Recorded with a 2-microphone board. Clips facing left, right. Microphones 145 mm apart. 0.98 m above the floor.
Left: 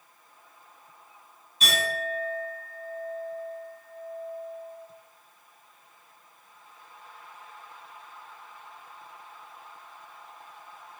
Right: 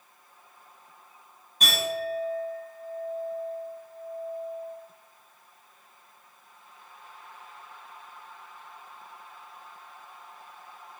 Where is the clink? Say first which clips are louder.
Right 1 dB; 55° right (ahead or behind), 1.7 m.